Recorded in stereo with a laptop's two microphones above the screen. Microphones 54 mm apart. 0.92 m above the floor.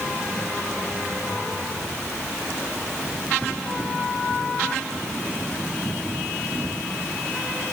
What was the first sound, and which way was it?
Only background noise.